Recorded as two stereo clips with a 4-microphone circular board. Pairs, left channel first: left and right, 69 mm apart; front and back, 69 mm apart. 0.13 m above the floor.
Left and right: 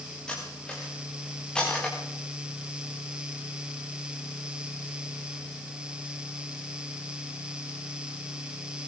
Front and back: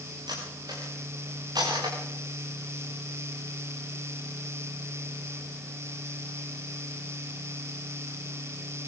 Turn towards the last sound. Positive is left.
turn(degrees=170)